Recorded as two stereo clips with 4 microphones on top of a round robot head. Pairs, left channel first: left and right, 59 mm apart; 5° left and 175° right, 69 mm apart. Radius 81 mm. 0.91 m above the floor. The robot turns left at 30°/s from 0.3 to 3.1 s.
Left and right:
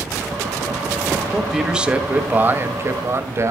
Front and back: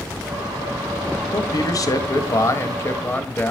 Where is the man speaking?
5° right, 1.8 m; by 3.5 s 55° right, 1.8 m.